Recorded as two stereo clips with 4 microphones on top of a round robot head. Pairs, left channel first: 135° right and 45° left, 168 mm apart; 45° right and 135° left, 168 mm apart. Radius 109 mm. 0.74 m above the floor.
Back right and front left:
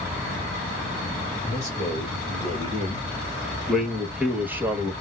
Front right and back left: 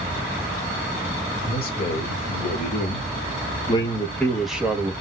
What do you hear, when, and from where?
1.5 s a man speaking: 60° right, 2.0 m; by 4.9 s 90° left, 1.0 m